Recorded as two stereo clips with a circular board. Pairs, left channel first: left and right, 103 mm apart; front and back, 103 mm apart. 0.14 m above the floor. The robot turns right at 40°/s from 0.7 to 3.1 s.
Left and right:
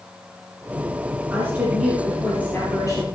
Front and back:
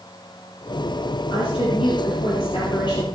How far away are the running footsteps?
I don't hear running footsteps.